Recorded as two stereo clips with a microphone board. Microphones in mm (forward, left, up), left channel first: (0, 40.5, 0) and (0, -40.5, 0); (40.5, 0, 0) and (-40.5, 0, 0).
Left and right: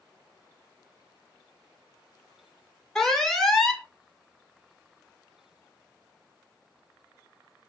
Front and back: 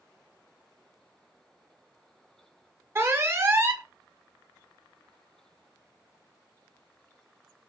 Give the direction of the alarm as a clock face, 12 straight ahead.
6 o'clock.